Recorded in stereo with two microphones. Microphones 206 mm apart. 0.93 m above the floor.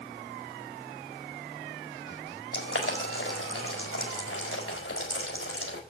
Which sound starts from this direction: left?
Boiling, at 2.5 s.